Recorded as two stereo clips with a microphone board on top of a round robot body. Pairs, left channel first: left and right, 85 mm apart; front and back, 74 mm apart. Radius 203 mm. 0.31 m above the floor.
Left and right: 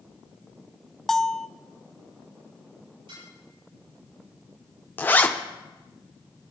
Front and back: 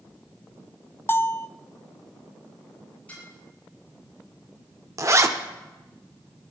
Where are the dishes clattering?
70° right, 8.5 m.